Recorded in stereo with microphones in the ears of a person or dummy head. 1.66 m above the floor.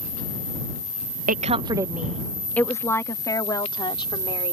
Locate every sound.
1.3 s a woman speaking: 40° right (ahead or behind); by 4.5 s 30° left (ahead or behind)